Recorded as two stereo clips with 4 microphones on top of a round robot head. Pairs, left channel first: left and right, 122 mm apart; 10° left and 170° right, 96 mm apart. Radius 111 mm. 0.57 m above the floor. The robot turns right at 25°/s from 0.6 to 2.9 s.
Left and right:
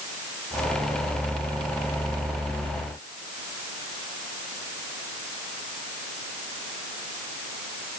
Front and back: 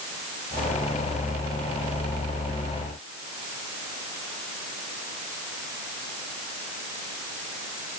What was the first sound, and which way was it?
Only background noise.